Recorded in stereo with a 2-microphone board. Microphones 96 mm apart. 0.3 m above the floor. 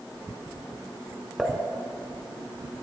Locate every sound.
1.4 s dishes clattering: 5° left (ahead or behind), 2.5 m